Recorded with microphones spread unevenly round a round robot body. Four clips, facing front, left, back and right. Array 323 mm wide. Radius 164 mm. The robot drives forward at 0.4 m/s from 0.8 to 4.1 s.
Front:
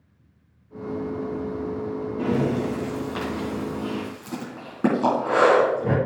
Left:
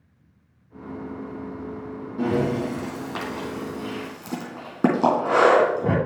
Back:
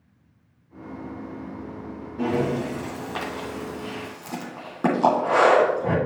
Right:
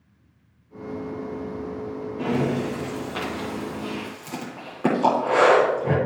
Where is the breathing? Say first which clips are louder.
Left 1 dB, even; 65° left, 3.5 m; by 6.0 s 75° left, 3.5 m.